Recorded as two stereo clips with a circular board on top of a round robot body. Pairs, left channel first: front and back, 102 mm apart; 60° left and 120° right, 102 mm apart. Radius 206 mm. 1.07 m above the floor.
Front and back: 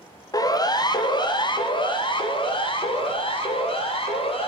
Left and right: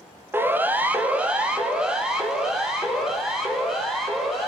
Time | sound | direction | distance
0.3 | a siren | 50° right | 2.5 m